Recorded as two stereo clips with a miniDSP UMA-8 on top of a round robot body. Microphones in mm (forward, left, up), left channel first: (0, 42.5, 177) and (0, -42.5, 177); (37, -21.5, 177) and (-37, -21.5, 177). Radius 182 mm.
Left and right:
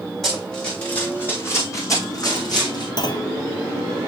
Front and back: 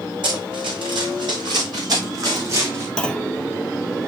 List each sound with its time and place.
0.2 s running footsteps: 175° left, 1.6 m; by 2.9 s 125° left, 1.8 m
3.0 s a clunk: 75° left, 0.9 m